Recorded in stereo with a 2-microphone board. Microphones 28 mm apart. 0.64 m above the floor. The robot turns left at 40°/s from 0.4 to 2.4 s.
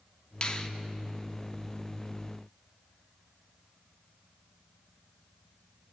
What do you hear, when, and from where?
0.4 s a finger snap: 40° left (ahead or behind), 0.7 m; by 0.7 s 30° left (ahead or behind), 0.7 m